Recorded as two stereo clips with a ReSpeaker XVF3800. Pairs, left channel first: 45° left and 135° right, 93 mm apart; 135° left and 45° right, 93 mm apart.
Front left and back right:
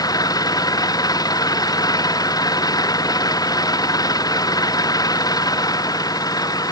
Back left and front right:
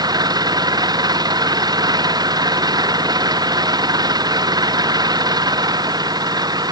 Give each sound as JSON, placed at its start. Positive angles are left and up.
{"t": 0.0, "sound": "an engine running", "azimuth_deg": 0}